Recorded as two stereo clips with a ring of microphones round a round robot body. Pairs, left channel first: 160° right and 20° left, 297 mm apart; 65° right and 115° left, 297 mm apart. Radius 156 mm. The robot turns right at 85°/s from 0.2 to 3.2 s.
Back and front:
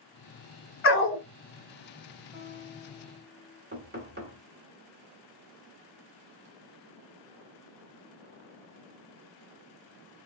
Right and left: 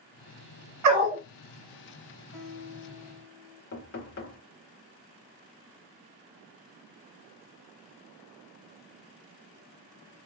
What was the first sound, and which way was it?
A dog barking, 150° left.